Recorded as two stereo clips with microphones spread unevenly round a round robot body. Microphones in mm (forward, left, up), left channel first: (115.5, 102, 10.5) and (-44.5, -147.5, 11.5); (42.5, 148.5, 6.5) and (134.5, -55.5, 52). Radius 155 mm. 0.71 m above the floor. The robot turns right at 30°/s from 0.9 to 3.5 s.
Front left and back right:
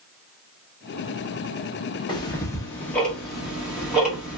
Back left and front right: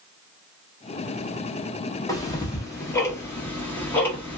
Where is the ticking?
110° left, 0.8 m; by 4.4 s 155° left, 0.8 m.